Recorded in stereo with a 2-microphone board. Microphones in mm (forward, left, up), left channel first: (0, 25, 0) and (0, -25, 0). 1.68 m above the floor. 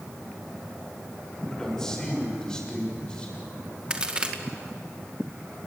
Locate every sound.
1.5 s a man speaking: 10° left (ahead or behind), 7 m; by 3.4 s 15° left (ahead or behind), 8 m
3.9 s a crack: 20° right (ahead or behind), 2 m